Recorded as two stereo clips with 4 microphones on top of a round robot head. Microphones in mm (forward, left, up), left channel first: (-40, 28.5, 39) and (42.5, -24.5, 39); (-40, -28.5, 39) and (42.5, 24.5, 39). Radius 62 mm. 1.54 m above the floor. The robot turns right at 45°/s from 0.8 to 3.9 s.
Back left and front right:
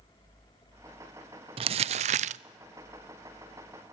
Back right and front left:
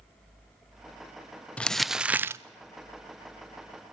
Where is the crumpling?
70° right, 0.5 m; by 2.4 s 30° right, 0.5 m.